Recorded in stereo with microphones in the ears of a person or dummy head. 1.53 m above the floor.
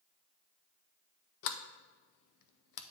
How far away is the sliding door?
About 0.6 m.